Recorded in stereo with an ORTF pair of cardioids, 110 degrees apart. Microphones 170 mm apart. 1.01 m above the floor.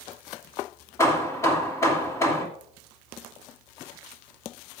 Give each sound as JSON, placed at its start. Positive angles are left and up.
{"t": 1.0, "sound": "hammering", "azimuth_deg": 15, "distance_m": 2.5}